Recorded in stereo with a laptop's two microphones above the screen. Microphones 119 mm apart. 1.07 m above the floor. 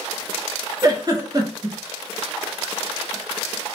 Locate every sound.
0.8 s a giggle: 30° right (ahead or behind), 0.6 m